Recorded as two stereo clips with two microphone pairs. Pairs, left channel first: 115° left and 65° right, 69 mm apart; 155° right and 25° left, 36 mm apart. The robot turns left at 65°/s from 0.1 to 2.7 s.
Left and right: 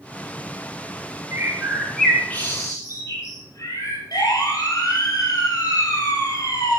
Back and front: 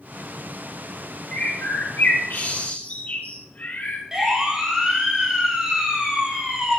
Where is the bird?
115° right, 8.5 m; by 4.0 s 155° left, 8.5 m.